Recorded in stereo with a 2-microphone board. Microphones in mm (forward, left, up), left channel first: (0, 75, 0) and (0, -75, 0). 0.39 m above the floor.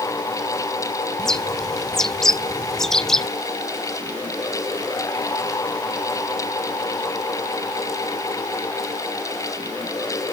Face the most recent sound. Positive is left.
turn(degrees=5)  # may be behind; listen again after turning